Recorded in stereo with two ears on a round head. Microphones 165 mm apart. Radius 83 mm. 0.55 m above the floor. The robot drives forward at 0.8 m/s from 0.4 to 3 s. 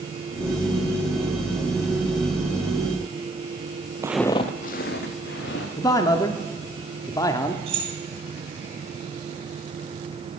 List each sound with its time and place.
4.0 s footsteps: 20° right (ahead or behind), 0.5 m; by 5.7 s 65° left (ahead or behind), 2 m
5.8 s a man speaking: 20° left (ahead or behind), 0.7 m
7.7 s keys jangling: 35° right (ahead or behind), 3 m